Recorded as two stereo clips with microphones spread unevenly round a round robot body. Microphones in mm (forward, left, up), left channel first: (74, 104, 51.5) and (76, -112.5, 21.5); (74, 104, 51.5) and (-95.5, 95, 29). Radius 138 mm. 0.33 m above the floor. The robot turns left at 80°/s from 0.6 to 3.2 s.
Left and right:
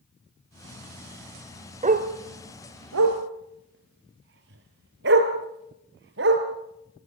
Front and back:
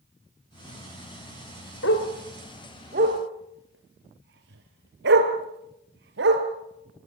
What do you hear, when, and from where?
1.8 s a dog barking: 30° right, 2.5 m; by 6.5 s 140° right, 2.5 m